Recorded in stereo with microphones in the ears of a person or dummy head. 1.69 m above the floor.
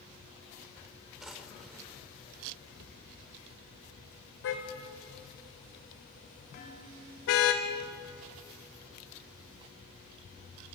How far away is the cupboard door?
About 2.5 m.